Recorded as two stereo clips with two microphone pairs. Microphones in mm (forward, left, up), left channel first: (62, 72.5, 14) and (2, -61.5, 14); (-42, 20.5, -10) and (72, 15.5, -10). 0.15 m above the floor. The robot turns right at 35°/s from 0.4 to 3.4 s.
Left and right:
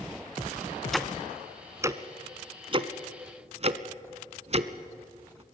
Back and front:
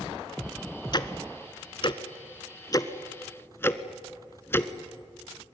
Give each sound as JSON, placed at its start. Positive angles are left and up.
{"t": 0.9, "sound": "ticking", "azimuth_deg": 150, "distance_m": 0.9}